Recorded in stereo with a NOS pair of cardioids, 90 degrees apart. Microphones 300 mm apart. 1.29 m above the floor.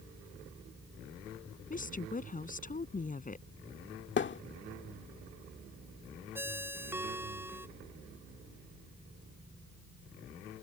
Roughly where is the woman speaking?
Ahead left.